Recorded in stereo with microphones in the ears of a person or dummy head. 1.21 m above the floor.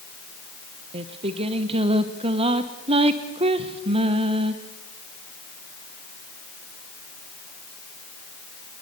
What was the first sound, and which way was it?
Singing, 30° right (ahead or behind).